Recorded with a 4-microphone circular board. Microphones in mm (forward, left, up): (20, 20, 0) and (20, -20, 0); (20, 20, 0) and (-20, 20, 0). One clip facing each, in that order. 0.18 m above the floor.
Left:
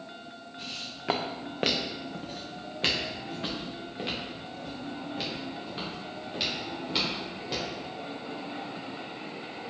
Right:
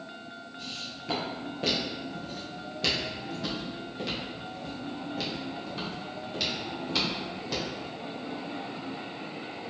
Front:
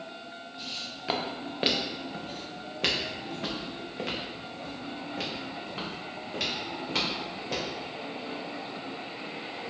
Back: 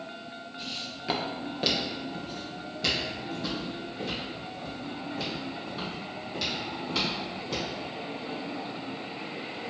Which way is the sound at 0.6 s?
100° left.